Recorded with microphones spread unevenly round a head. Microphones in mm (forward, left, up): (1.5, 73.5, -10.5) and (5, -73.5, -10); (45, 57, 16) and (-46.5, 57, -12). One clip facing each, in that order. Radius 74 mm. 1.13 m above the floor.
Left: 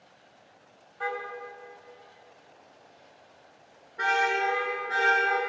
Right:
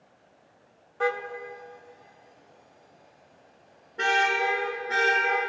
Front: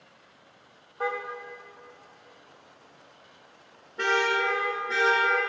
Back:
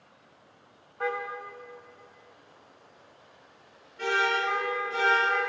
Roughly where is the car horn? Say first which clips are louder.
Right 6 dB, even; ahead right.